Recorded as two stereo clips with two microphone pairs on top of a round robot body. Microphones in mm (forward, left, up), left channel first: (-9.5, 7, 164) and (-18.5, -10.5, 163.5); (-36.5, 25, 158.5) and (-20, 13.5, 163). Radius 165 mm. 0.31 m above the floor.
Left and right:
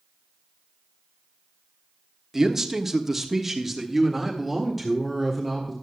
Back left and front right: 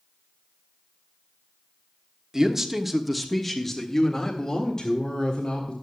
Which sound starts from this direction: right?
A man speaking, at 2.3 s.